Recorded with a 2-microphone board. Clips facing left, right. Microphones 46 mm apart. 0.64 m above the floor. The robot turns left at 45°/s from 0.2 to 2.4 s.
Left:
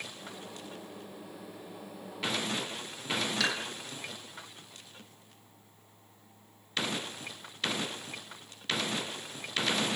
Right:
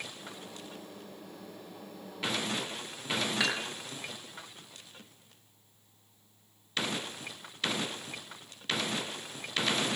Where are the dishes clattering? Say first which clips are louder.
Right 1 dB; 20° right (ahead or behind), 9 m.